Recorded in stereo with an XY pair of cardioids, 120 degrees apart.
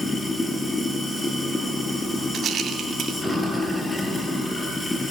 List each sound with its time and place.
0.0 s running water: 15° left, 5.5 m
2.3 s a rattle: 45° right, 3.5 m